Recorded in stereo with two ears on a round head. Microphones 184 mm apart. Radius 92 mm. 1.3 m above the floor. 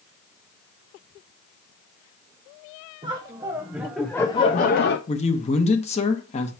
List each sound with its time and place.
3.0 s laughter: 25° right (ahead or behind), 1.0 m; by 5.0 s 55° left (ahead or behind), 0.5 m
5.1 s a man speaking: 30° left (ahead or behind), 1.1 m